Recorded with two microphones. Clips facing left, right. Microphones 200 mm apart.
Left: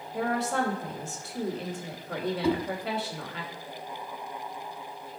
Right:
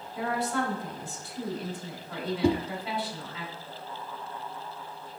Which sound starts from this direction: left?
A woman speaking, at 0.1 s.